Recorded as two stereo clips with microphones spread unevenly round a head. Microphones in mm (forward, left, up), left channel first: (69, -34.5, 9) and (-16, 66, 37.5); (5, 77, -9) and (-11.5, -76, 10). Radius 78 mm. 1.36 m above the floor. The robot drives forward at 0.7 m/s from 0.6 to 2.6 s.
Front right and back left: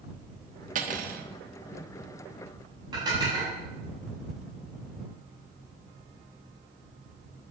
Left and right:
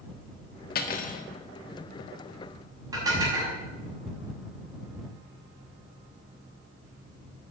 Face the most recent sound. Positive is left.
turn(degrees=-165)